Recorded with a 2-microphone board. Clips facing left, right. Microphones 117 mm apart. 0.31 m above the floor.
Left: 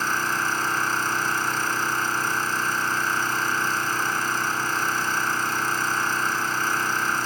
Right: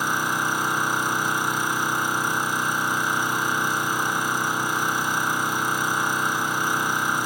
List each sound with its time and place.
0.0 s an engine running: 15° right (ahead or behind), 1.6 m